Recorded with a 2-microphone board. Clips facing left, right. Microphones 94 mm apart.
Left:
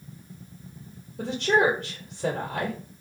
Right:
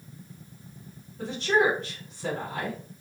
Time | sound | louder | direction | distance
1.2 | a woman speaking | left 2 dB | 70° left (ahead or behind) | 1.0 m